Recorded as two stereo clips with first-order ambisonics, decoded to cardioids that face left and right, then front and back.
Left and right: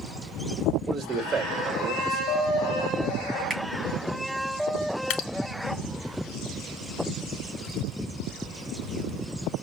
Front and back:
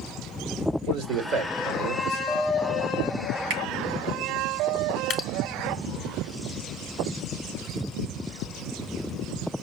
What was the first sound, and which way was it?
A man speaking, 155° right.